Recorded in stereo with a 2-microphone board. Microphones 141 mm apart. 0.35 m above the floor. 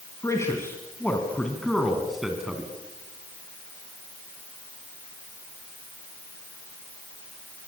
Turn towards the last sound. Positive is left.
turn(degrees=-5)  # may be behind; listen again after turning